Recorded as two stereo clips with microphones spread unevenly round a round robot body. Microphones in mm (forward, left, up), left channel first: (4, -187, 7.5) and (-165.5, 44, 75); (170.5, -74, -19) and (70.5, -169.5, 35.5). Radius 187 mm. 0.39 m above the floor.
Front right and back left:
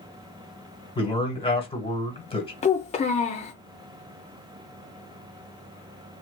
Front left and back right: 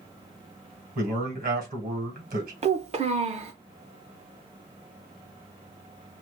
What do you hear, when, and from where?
0.9 s a man speaking: 115° right, 1.8 m
2.6 s a child speaking: 85° right, 0.5 m